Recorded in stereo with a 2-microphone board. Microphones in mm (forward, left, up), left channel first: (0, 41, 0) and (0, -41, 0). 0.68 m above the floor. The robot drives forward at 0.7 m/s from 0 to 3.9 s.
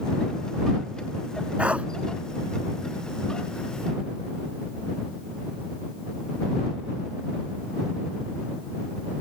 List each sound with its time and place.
1.6 s a dog barking: 15° right (ahead or behind)